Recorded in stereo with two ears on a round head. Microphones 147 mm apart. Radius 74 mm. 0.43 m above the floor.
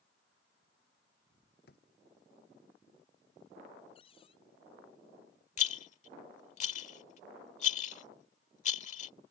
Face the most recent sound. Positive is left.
turn(degrees=45)  # may be behind; listen again after turning